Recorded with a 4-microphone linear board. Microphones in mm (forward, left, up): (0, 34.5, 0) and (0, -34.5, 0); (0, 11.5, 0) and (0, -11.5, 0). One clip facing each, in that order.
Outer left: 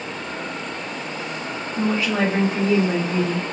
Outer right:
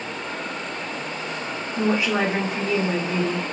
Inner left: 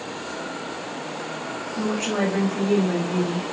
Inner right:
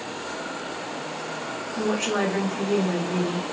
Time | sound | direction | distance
1.8 | a woman speaking | 30° right (ahead or behind) | 1.2 m